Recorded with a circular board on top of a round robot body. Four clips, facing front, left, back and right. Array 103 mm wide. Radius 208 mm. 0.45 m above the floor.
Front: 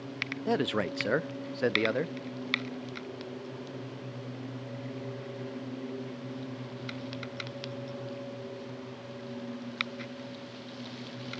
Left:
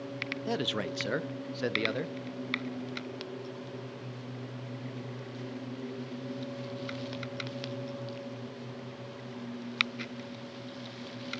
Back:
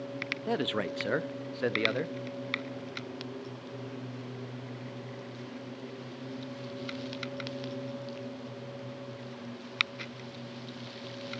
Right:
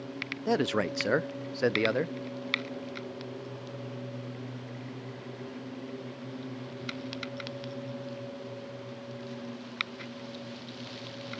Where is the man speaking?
70° right, 0.7 m.